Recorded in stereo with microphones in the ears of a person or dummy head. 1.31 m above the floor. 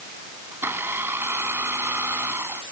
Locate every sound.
0.5 s a blender: 10° right (ahead or behind)